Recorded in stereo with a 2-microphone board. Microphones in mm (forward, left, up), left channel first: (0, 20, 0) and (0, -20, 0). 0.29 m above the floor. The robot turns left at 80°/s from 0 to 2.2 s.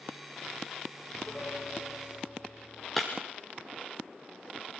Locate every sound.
1.1 s a piano: 165° left, 6 m; by 2.9 s 80° left, 6 m
3.0 s breaking glass: 10° left (ahead or behind), 4 m